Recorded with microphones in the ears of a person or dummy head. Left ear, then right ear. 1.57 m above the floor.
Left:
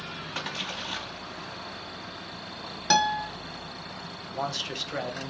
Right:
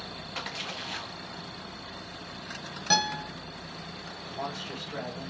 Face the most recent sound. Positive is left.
turn(degrees=75)  # may be behind; listen again after turning